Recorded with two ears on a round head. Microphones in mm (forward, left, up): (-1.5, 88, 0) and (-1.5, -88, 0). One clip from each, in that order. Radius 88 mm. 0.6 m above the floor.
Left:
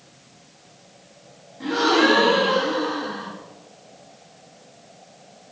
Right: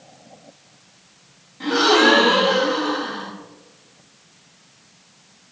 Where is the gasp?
40° right (ahead or behind), 3.5 m.